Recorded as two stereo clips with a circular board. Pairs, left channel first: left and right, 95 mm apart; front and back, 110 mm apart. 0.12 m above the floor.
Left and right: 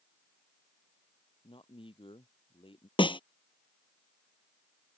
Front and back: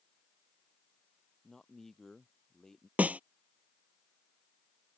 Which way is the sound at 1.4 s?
85° left.